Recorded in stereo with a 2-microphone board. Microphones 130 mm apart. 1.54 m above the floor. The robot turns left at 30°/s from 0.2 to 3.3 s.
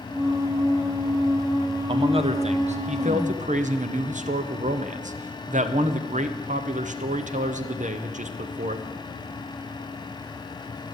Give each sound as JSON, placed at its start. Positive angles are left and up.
{"t": 1.9, "sound": "a man speaking", "azimuth_deg": -45, "distance_m": 0.7}